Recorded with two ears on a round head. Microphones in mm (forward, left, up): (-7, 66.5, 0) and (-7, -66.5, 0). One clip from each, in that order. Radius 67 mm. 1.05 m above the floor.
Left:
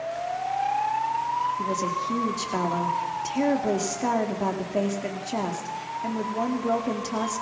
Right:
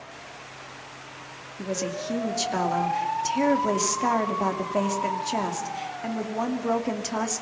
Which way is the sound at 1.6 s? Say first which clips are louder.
Left 4 dB; 35° right (ahead or behind).